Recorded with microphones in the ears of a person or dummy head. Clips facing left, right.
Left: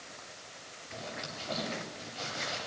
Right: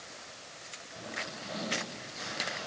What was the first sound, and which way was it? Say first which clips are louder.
A zipper: left 1 dB; 65° left (ahead or behind).